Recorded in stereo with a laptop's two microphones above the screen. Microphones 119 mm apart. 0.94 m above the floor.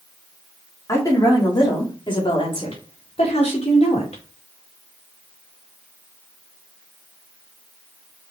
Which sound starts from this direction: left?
A woman speaking, at 0.9 s.